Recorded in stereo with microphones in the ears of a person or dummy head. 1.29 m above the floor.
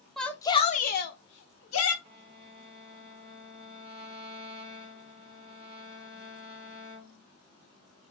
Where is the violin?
30° right (ahead or behind), 1.5 m.